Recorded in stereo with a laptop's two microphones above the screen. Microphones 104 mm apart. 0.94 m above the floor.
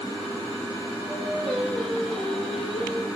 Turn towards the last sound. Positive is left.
turn(degrees=0)  # may be behind; listen again after turning